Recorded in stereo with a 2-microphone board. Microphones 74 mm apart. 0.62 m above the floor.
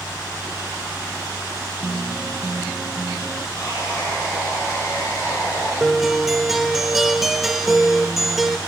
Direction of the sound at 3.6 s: 55° left (ahead or behind).